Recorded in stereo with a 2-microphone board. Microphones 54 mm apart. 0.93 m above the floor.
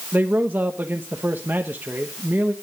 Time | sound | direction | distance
0.1 | a man speaking | 40° right (ahead or behind) | 1.1 m